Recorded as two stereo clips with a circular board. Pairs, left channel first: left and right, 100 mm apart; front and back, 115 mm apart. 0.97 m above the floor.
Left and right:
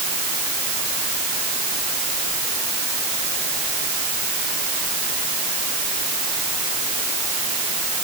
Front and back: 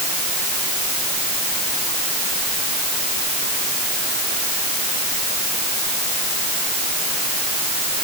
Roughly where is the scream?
I don't hear a scream.